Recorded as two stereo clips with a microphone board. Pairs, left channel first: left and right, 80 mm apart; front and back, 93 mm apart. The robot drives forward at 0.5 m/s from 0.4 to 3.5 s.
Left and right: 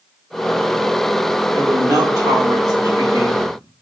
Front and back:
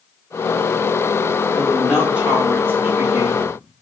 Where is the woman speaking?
90° right, 1.4 m; by 3.6 s 130° right, 1.7 m.